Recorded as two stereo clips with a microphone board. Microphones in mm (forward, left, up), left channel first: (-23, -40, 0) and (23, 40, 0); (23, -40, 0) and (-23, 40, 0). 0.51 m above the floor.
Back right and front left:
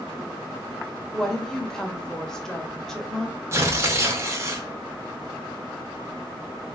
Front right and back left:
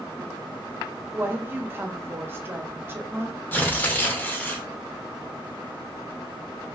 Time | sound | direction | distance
1.1 | a woman speaking | 160° left | 0.7 m
3.5 | tearing paper | 5° left | 0.8 m